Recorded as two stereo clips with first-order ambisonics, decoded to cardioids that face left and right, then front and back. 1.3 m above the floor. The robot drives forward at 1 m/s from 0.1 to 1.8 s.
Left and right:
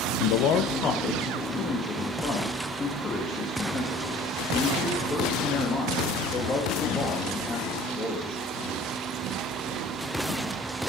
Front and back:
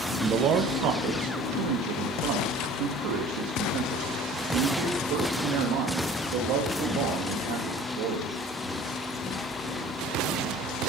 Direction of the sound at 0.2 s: 105° left.